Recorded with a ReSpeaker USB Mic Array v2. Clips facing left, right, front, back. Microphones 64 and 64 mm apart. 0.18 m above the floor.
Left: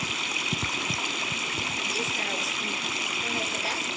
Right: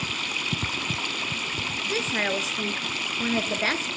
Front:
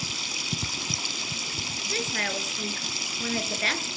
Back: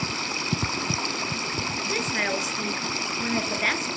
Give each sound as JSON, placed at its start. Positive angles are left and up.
{"t": 0.0, "sound": "running water", "azimuth_deg": 175, "distance_m": 0.8}
{"t": 1.9, "sound": "a woman speaking", "azimuth_deg": -100, "distance_m": 2.5}